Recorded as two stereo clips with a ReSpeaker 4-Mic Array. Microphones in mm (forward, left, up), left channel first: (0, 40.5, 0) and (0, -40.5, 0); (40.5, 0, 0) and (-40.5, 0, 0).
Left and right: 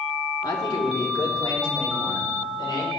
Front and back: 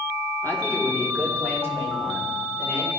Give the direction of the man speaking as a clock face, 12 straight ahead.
10 o'clock.